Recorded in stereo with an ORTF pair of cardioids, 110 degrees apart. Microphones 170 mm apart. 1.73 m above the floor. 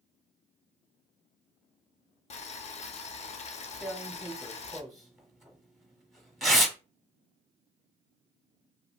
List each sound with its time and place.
2.3 s boiling: 40° left, 0.5 m
3.8 s tearing paper: straight ahead, 0.9 m